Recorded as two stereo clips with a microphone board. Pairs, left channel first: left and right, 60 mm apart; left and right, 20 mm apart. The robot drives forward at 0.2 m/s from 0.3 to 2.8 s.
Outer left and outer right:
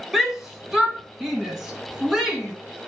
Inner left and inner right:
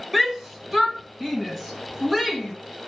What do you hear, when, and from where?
0.1 s a shout: 5° right (ahead or behind), 1.9 m